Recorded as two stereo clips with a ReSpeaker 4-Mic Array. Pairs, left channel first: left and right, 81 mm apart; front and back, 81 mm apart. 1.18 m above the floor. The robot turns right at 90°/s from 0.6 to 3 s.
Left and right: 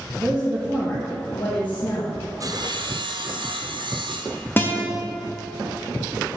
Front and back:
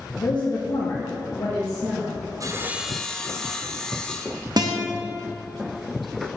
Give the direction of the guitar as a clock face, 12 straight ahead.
7 o'clock.